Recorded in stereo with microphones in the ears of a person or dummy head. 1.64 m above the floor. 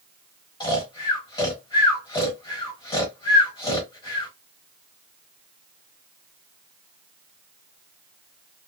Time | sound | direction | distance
0.6 | snoring | 20° left (ahead or behind) | 1.2 m